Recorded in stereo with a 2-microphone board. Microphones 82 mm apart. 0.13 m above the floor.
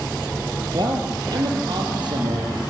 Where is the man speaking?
65° right (ahead or behind), 3.5 m.